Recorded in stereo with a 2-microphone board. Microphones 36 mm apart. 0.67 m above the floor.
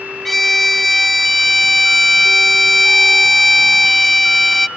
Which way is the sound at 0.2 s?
5° left (ahead or behind).